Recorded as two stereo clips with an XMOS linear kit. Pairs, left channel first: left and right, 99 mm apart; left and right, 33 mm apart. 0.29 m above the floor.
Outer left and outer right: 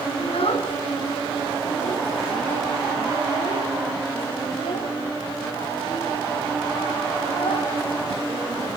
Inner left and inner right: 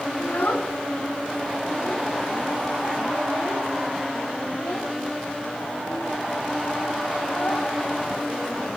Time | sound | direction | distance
0.2 | a child speaking | 70° left (ahead or behind) | 1.9 m